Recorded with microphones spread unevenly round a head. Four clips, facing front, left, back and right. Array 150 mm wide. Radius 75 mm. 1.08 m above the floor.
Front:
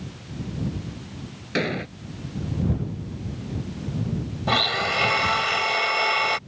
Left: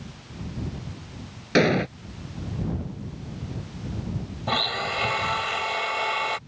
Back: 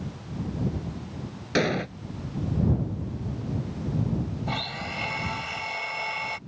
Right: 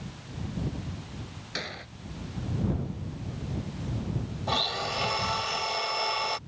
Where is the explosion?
80° left.